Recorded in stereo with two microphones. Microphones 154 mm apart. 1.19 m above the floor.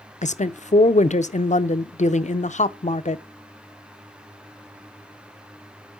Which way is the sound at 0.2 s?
50° left (ahead or behind).